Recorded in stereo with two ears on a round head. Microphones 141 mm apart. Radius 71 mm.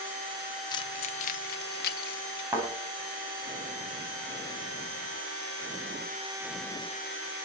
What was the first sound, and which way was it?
Keys jangling, 25° left (ahead or behind).